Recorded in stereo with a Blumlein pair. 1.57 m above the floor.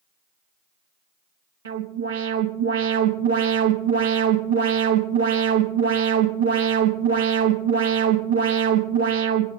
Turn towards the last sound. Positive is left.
turn(degrees=-65)